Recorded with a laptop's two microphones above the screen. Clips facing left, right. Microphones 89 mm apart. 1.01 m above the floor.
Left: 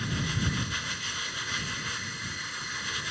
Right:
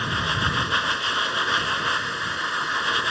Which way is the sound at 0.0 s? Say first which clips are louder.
Right 7 dB; 65° right (ahead or behind).